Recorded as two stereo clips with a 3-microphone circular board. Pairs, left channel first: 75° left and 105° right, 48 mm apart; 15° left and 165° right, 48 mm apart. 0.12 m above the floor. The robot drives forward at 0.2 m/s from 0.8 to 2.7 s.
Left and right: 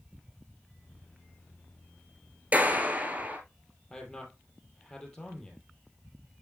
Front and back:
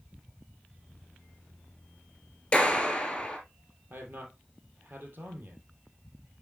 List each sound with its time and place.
2.5 s a clap: 55° right, 2 m
3.9 s a man speaking: 155° left, 2.5 m